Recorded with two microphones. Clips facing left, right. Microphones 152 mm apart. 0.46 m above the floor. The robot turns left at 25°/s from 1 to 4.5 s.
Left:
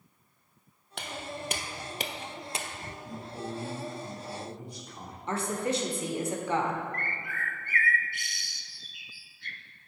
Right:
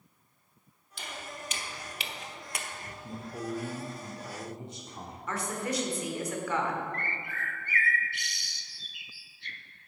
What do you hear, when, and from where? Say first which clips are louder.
1.0 s footsteps: left 4 dB; 70° left (ahead or behind), 1.1 m; by 2.9 s 20° left (ahead or behind), 0.9 m
3.0 s a man speaking: right 2 dB; 20° right (ahead or behind), 0.7 m
5.3 s a woman speaking: left 4 dB; 30° left (ahead or behind), 1.1 m
6.9 s a bird: even; 50° left (ahead or behind), 0.5 m